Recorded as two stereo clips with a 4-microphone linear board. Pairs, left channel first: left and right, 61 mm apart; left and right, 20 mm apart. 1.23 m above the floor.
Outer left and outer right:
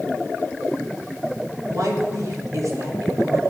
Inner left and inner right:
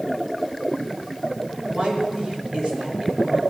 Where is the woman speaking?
60° right (ahead or behind), 3.5 m.